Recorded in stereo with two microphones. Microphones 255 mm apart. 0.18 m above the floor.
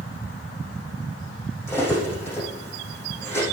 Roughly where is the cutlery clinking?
Centre.